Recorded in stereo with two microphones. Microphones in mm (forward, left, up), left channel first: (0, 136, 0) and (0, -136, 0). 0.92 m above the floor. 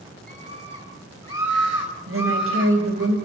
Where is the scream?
45° left (ahead or behind), 4 m; by 3.1 s 85° left, 3.5 m.